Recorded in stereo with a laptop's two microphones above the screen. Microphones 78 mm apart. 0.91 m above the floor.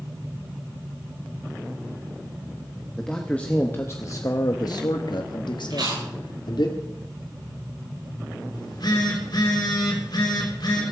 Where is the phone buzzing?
60° left (ahead or behind), 3 m.